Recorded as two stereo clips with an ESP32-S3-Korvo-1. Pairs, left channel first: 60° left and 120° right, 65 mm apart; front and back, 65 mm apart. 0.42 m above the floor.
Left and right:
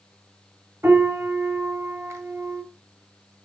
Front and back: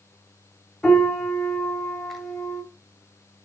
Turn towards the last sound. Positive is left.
turn(degrees=-85)